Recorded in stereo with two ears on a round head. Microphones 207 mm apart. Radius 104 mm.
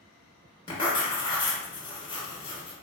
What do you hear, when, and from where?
0.7 s writing: 20° left (ahead or behind), 1.1 m